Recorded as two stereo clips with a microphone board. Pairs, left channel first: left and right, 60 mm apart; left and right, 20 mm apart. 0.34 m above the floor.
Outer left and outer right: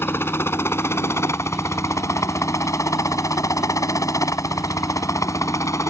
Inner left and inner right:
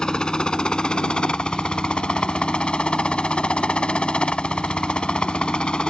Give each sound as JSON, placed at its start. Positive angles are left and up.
{"t": 0.0, "sound": "a helicopter", "side_deg": 40}